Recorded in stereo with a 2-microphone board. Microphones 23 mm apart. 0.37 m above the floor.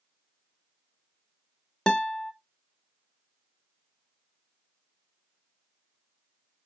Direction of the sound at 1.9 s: 25° left (ahead or behind).